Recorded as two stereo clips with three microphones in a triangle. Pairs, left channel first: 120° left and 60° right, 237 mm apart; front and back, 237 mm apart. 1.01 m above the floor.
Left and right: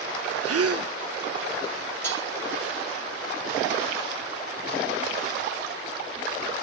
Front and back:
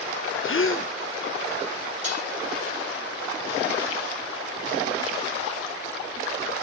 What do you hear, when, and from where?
0.4 s a gasp: 40° right, 0.5 m
2.0 s dishes clattering: 160° right, 5 m